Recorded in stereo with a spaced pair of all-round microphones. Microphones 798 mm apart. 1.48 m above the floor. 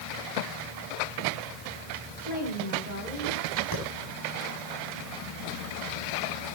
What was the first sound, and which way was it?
A woman speaking, 65° left (ahead or behind).